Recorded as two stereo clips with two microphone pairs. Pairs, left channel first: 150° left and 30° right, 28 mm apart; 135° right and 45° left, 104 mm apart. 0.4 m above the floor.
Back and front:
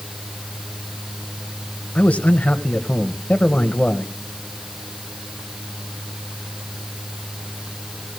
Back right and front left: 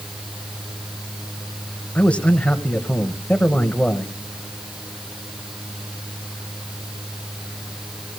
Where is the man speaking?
145° left, 1.8 m.